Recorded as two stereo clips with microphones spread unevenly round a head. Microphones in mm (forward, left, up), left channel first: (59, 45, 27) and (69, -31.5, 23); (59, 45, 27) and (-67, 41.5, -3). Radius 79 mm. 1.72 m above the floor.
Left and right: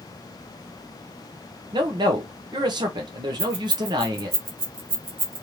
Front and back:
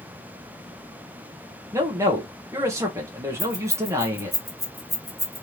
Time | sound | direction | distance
1.7 | a man speaking | 100° right | 0.8 m
3.4 | keys jangling | 55° right | 0.8 m